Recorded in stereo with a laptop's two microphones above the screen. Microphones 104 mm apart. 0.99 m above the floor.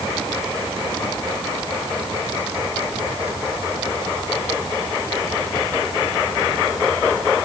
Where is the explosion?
No explosion in this recording.